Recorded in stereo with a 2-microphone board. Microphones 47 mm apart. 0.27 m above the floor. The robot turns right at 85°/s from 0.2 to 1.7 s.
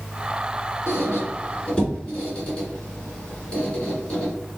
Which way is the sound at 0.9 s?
75° left (ahead or behind).